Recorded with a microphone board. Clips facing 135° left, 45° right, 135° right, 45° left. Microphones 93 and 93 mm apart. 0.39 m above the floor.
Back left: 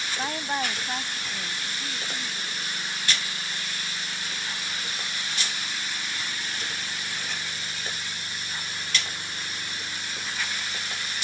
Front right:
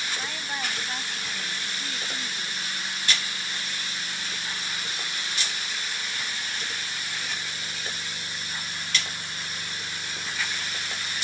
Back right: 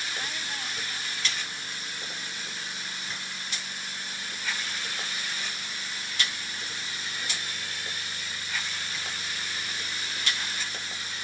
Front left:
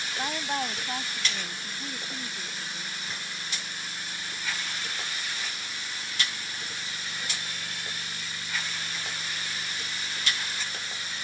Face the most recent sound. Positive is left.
turn(degrees=30)